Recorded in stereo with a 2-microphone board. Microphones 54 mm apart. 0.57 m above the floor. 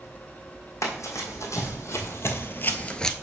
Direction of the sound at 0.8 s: 70° left (ahead or behind).